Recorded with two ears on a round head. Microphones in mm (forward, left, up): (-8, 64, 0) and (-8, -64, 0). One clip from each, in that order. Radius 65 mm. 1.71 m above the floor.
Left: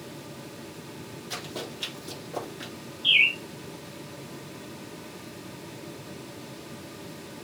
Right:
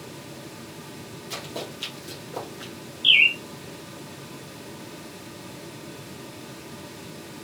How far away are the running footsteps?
About 2.5 m.